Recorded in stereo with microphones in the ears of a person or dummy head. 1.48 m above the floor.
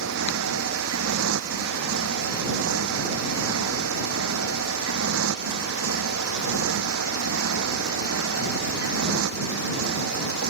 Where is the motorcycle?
75° right (ahead or behind).